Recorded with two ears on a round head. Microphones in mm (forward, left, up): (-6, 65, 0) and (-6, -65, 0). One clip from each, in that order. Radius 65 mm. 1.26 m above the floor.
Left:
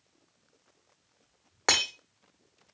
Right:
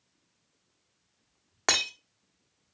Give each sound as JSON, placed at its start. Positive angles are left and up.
{"t": 1.7, "sound": "breaking glass", "side_deg": -15, "distance_m": 1.0}